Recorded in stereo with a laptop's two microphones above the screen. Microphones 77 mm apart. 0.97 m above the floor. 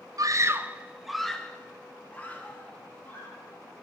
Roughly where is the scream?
Right.